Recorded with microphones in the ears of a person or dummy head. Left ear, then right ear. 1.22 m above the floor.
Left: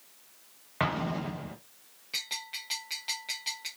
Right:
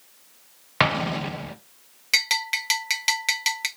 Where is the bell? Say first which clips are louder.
Right 13 dB; 50° right (ahead or behind), 0.6 m.